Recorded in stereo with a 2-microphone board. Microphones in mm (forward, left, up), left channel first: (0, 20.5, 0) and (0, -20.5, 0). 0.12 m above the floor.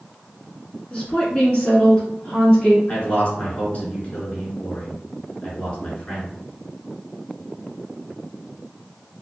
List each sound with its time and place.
0.9 s a woman speaking: 20° left (ahead or behind), 1.2 m
2.9 s a man speaking: 35° left (ahead or behind), 1.4 m